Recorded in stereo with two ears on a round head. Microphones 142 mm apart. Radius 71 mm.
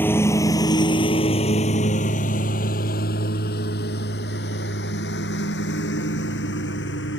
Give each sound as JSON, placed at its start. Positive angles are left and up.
{"t": 0.0, "sound": "a lawn mower", "side_deg": 15}